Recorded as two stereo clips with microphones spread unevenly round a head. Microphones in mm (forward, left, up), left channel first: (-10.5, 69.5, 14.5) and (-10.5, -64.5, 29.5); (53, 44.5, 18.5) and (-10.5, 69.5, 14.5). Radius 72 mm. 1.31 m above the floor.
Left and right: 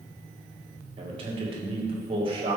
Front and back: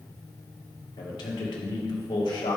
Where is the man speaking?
35° right, 1.9 m.